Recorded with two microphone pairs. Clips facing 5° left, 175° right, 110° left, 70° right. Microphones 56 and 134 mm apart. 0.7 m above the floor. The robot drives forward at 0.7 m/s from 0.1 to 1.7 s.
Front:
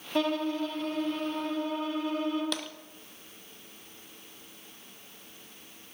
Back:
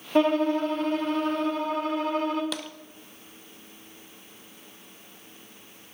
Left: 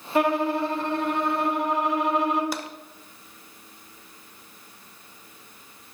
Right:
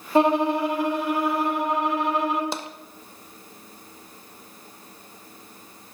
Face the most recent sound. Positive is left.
turn(degrees=-95)